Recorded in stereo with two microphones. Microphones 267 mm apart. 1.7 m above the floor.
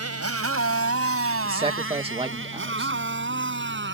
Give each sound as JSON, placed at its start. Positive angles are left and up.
{"t": 0.0, "sound": "a motorcycle", "side_deg": -65}
{"t": 1.4, "sound": "a man speaking", "side_deg": -20}